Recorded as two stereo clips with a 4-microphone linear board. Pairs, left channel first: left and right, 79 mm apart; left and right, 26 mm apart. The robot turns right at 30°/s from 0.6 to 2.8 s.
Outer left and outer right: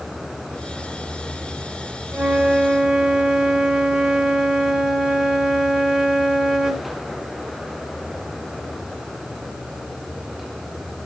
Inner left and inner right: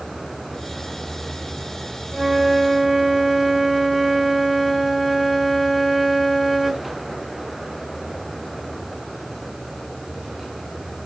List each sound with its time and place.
2.1 s a flute: 25° right (ahead or behind), 0.8 m; by 6.9 s 10° right (ahead or behind), 0.8 m